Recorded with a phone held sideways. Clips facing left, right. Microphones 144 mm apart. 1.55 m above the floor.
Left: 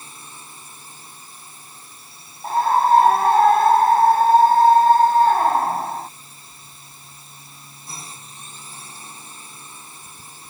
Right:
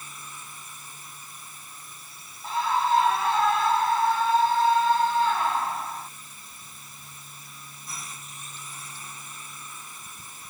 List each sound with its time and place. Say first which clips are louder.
0.0 s a drone: left 1 dB; 30° left (ahead or behind)
2.4 s a scream: left 8 dB; 50° left (ahead or behind)